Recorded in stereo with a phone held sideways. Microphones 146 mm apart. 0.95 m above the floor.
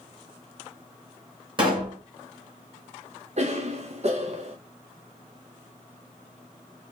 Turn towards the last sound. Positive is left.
turn(degrees=-50)  # may be behind; listen again after turning